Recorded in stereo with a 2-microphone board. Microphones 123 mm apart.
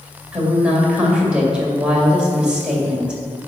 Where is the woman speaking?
10° right (ahead or behind), 2.5 m.